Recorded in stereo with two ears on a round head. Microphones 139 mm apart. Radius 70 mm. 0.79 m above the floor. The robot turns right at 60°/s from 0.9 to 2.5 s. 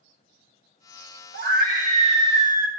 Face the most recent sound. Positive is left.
turn(degrees=-25)